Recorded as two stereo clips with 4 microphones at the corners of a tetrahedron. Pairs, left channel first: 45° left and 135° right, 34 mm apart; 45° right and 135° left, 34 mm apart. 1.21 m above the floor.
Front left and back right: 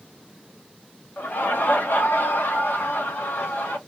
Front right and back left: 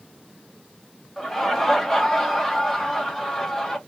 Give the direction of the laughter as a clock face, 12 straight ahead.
11 o'clock.